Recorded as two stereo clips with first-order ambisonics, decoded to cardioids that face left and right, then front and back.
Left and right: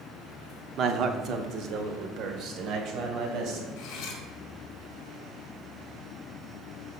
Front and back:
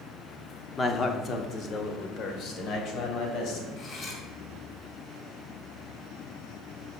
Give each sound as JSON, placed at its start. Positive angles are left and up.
{"t": 0.8, "sound": "a man speaking", "azimuth_deg": -65, "distance_m": 0.7}
{"t": 3.8, "sound": "cutlery clinking", "azimuth_deg": 60, "distance_m": 2.0}